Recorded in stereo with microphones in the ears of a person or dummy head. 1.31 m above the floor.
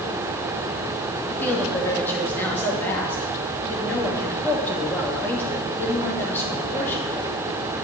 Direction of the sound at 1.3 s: 5° left (ahead or behind).